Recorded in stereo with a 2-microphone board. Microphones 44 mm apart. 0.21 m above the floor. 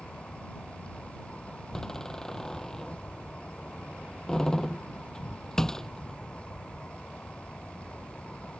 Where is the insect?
25° left (ahead or behind).